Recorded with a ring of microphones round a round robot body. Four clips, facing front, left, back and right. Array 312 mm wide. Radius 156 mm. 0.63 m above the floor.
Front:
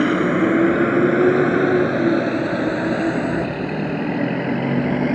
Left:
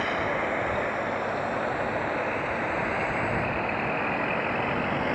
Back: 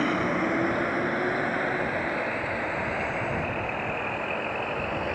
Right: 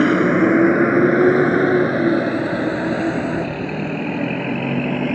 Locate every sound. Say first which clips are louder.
0.0 s a vehicle: right 13 dB, front 9 dB; 65° right; by 5.2 s 35° right